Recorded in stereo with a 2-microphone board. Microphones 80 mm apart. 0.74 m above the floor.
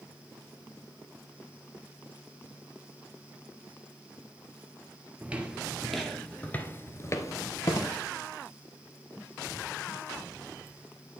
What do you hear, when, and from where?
5.2 s footsteps: 20° right (ahead or behind), 0.9 m; by 8.0 s 55° left (ahead or behind), 1.1 m